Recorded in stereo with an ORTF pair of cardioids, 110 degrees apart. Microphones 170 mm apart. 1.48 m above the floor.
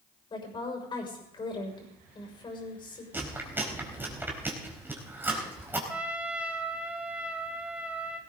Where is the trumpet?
10° right, 2.5 m.